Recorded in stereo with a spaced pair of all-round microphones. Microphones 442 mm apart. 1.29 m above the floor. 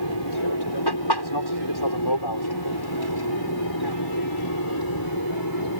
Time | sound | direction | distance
0.0 | an aircraft | 65° left (ahead or behind) | ?